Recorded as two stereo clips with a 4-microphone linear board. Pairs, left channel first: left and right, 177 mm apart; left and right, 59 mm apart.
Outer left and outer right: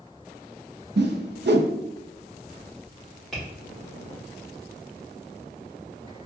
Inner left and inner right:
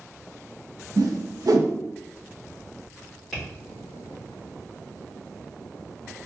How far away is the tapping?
About 1.9 m.